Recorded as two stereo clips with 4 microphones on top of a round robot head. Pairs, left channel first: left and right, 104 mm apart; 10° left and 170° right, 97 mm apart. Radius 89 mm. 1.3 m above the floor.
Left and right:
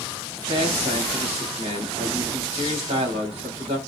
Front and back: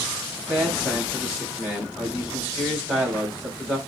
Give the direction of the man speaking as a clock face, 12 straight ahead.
3 o'clock.